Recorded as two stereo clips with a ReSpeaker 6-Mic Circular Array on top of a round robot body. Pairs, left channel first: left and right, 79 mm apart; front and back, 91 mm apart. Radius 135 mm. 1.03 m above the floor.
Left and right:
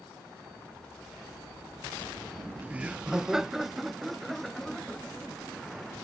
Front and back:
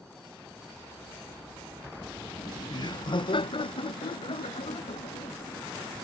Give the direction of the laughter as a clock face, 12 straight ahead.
1 o'clock.